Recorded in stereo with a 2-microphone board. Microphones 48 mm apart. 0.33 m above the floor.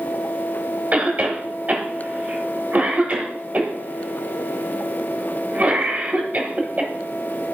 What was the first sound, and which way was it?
A cough, 30° right (ahead or behind).